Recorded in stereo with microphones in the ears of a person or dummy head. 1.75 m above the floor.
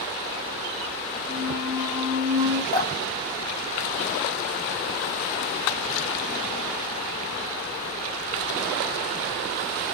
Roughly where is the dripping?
Left.